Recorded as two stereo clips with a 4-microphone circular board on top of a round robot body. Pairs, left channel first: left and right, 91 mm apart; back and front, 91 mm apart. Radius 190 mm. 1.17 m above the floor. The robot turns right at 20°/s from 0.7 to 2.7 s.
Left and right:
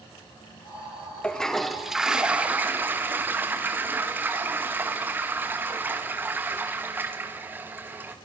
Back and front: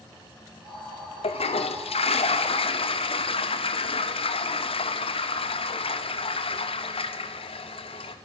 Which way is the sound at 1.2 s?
170° left.